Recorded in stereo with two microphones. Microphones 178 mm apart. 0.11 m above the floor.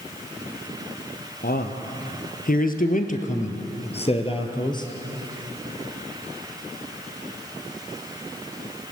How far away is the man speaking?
About 2.5 m.